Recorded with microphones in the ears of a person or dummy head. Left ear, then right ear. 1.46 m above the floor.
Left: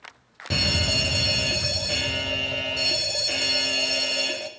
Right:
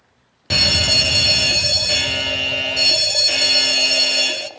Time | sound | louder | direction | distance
0.5 | a fire alarm | right 8 dB | 20° right (ahead or behind) | 0.8 m